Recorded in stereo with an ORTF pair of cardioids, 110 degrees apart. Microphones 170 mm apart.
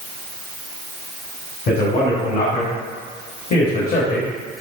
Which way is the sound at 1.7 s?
65° left.